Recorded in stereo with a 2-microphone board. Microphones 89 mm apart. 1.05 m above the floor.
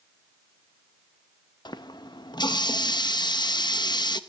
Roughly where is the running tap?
Left.